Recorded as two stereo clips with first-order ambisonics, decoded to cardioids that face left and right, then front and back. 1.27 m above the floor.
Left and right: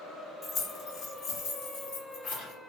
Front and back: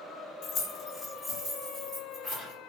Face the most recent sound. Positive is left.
turn(degrees=105)